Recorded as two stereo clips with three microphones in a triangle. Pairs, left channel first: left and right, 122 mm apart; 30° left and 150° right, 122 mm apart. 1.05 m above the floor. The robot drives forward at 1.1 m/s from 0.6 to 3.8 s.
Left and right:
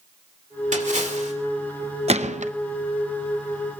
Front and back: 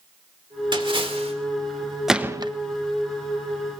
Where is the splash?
100° right, 2.5 m; by 1.3 s 115° right, 2.5 m.